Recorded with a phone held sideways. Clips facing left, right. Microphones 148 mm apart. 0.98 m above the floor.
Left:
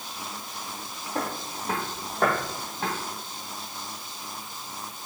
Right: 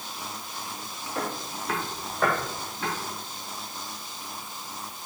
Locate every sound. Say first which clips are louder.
1.1 s footsteps: left 1 dB; 50° left (ahead or behind), 1.4 m; by 2.9 s 55° left (ahead or behind), 3 m